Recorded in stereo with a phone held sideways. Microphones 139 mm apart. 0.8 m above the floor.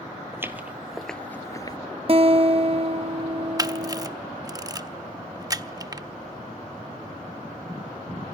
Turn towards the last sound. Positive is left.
turn(degrees=-25)  # may be behind; listen again after turning